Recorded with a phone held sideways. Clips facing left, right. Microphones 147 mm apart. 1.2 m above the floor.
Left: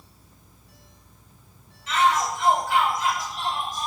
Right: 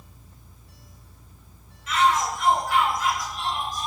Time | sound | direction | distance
1.9 | a shout | 30° left (ahead or behind) | 6 m